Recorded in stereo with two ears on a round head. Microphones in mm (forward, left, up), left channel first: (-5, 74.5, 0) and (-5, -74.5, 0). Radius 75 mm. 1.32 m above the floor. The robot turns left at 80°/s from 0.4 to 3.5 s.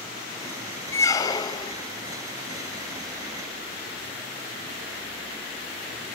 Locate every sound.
0.9 s a squeak: 15° left (ahead or behind), 0.5 m; by 1.7 s 25° left (ahead or behind), 0.5 m